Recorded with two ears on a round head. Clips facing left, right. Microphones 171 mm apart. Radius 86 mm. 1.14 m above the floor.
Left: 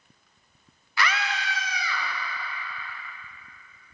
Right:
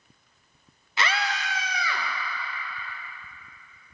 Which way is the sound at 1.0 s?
20° right (ahead or behind).